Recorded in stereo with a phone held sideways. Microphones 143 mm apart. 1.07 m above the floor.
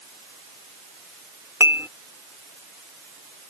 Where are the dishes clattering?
15° right (ahead or behind).